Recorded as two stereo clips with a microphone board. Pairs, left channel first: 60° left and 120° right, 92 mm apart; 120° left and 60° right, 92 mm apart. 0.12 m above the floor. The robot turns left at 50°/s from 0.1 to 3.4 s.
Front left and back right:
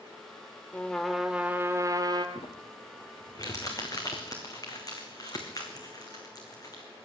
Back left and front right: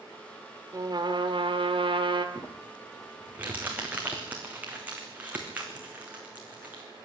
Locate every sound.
0.7 s a trumpet: 15° right, 1.5 m; by 2.2 s 90° right, 1.5 m
2.4 s crumpling: 65° left, 3.5 m; by 6.8 s 10° left, 3.5 m